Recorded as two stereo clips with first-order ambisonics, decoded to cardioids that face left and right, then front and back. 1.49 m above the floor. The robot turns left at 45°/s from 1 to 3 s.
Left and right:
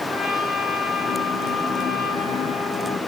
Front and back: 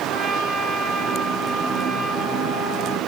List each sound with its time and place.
0.1 s a trumpet: 140° left, 3.5 m; by 3.0 s 50° left, 3.5 m